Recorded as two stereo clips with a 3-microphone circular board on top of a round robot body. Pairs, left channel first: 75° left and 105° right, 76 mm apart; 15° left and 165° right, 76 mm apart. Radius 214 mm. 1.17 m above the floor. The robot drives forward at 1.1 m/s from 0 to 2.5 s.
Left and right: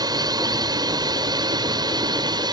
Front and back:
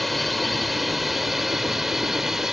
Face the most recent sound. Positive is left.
turn(degrees=-80)